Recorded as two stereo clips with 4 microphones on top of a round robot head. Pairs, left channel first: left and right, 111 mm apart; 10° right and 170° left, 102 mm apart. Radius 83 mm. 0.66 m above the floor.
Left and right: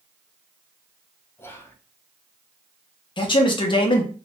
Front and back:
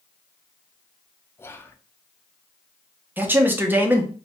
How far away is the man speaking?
About 0.7 m.